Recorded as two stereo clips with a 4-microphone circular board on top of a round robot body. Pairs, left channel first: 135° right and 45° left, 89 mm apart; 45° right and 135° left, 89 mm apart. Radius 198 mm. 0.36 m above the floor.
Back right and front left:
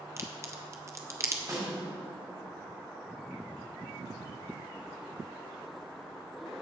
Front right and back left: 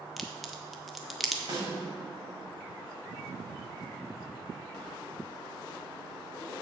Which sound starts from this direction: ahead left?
A crack, at 0.2 s.